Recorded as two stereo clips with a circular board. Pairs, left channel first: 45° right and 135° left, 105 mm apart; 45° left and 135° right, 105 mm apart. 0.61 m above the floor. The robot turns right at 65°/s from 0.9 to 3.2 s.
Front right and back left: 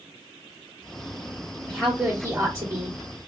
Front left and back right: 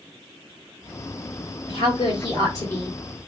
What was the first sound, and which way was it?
A woman speaking, 30° left.